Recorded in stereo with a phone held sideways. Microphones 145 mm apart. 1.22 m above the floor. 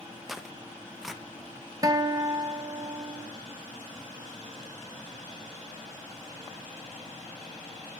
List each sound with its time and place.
0.3 s tearing paper: 5° right (ahead or behind), 0.7 m
1.8 s a guitar: 25° right (ahead or behind), 0.6 m